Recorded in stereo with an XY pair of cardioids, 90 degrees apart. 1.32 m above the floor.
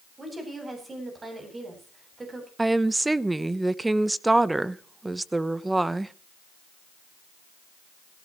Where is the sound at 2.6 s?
15° right, 1.0 m.